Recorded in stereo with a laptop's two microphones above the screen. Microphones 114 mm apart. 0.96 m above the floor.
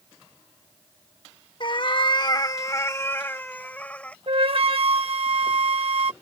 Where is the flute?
55° right (ahead or behind).